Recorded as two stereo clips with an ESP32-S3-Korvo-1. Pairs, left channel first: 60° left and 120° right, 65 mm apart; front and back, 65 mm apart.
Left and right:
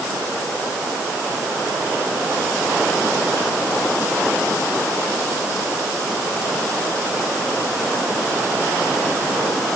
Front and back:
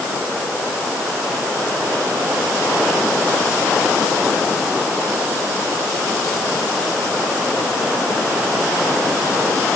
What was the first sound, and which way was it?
Only background noise.